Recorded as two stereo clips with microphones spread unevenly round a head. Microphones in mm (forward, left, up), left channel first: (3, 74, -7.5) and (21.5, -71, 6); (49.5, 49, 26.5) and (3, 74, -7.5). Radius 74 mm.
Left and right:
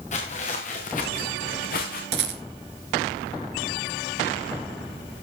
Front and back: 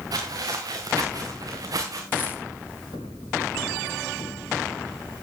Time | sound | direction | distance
0.1 | footsteps | 145° left | 4.5 m
2.1 | a rattle | 95° right | 3 m